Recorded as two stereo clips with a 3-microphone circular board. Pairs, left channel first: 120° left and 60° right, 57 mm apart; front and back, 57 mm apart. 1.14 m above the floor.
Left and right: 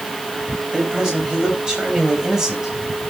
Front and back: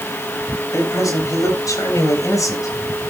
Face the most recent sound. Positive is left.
turn(degrees=20)